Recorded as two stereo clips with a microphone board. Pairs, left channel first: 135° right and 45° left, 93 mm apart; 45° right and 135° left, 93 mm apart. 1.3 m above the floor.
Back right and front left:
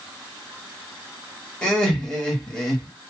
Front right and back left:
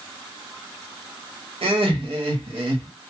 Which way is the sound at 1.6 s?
145° left.